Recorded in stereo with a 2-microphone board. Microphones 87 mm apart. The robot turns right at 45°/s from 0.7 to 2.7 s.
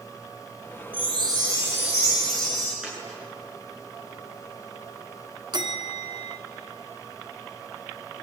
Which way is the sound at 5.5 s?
50° right (ahead or behind).